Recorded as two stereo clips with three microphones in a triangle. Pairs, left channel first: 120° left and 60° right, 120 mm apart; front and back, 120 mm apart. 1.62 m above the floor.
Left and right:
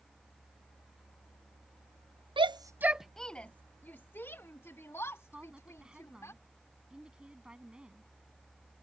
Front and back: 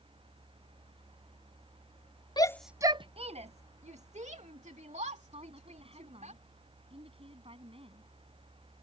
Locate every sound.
2.4 s a shout: 40° right; by 6.3 s 175° right
5.3 s a woman speaking: 140° right